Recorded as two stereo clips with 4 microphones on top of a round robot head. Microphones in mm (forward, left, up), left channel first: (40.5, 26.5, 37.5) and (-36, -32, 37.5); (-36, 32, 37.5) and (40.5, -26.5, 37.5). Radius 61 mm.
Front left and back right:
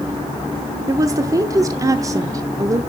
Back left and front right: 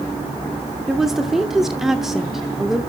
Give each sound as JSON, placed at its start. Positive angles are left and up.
{"t": 0.9, "sound": "a woman speaking", "azimuth_deg": -120, "distance_m": 0.9}